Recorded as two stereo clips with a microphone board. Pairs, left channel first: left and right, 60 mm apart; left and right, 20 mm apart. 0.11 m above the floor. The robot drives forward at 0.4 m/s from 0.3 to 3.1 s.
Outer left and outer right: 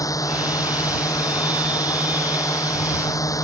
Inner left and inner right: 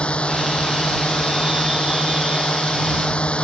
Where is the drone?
65° left (ahead or behind).